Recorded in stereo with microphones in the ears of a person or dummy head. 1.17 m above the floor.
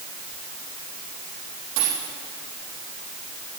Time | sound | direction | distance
1.8 | a dropped coin | 60° right (ahead or behind) | 4 m